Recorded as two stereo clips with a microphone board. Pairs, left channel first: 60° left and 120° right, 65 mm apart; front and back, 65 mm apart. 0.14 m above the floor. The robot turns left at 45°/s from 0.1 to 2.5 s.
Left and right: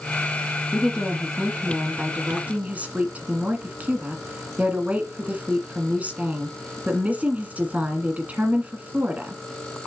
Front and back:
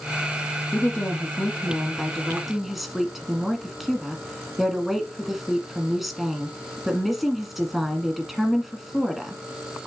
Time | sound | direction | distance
0.7 | a woman speaking | 15° right | 1.5 m